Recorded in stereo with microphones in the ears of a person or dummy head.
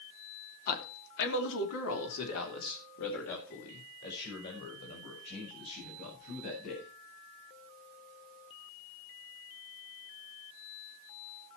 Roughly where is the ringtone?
I don't hear a ringtone.